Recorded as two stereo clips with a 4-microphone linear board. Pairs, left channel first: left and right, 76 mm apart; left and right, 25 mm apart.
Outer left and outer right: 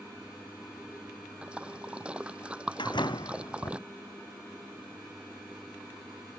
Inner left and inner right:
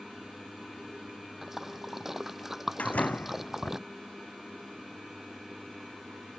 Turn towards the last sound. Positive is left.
turn(degrees=80)